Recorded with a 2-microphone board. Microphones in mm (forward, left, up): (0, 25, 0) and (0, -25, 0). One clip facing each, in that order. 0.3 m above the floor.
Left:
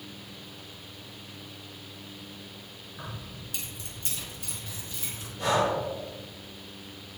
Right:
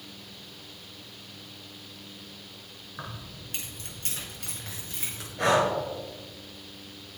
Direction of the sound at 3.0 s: 35° right (ahead or behind).